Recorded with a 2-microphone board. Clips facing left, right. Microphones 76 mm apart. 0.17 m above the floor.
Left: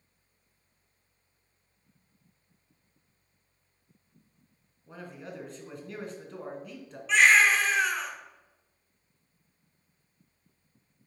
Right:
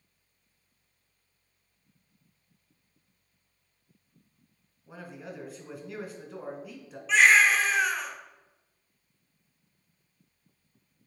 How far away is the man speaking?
About 1.5 m.